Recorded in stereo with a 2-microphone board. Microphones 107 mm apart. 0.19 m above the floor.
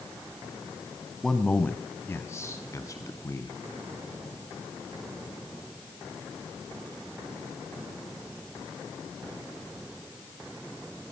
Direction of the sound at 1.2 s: 5° left (ahead or behind).